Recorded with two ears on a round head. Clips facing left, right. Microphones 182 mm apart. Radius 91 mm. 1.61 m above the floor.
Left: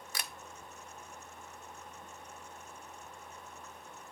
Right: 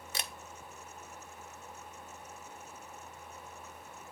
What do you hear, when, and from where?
0.1 s a camera shutter: 20° right (ahead or behind), 0.5 m